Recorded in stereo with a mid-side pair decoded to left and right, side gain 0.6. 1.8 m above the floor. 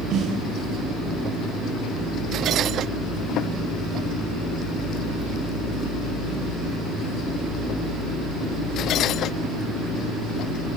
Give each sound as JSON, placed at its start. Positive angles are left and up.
{"t": 0.1, "sound": "a snare drum", "azimuth_deg": -60, "distance_m": 6.0}